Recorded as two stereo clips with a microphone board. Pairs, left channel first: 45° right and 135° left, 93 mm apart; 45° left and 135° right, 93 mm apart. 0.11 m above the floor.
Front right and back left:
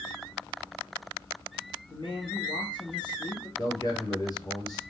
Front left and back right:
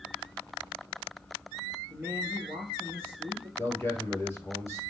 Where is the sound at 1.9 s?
65° right, 2 m.